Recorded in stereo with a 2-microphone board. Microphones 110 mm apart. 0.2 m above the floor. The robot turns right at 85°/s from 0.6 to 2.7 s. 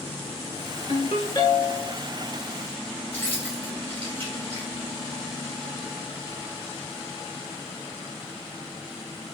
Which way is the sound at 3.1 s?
20° left (ahead or behind).